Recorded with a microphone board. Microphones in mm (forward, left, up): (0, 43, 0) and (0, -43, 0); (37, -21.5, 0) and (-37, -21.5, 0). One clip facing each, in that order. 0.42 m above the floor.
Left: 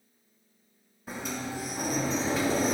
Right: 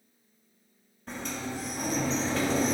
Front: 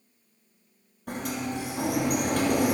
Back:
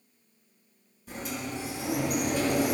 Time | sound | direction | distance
1.1 | a sliding door | 10° left | 2.5 m